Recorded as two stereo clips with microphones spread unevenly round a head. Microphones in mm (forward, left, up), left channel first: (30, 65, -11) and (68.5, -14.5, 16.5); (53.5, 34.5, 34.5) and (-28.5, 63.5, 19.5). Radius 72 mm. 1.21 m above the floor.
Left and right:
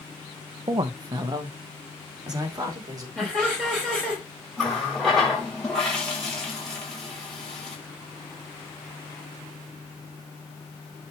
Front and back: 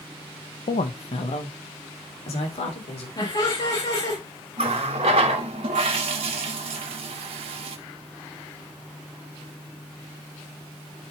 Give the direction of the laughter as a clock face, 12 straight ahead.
12 o'clock.